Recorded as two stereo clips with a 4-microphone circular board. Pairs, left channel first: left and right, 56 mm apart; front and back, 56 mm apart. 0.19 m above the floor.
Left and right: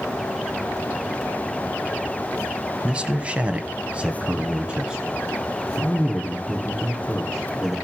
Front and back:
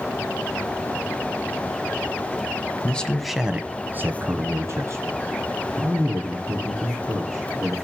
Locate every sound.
2.8 s a man speaking: 40° right, 1.1 m; by 7.8 s 165° right, 5 m